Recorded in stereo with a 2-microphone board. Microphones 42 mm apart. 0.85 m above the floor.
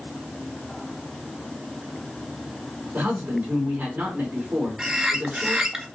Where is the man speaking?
40° right (ahead or behind), 3 m.